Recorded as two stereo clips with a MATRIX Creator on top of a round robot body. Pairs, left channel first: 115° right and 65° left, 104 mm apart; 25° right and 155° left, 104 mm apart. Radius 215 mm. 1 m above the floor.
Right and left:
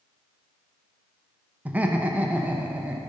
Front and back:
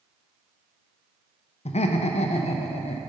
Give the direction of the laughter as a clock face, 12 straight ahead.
12 o'clock.